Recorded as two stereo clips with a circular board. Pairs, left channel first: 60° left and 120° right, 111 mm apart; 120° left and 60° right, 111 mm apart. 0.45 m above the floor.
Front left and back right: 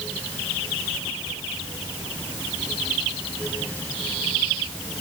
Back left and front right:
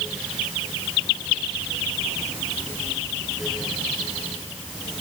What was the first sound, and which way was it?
Only background noise.